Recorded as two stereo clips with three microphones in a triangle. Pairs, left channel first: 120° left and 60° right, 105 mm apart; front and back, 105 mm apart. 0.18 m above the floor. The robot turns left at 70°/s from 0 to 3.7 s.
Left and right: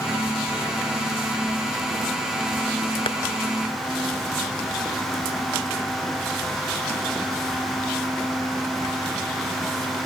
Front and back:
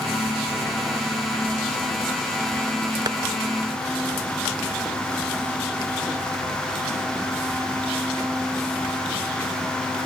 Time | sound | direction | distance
3.1 | tapping | 140° left | 0.7 m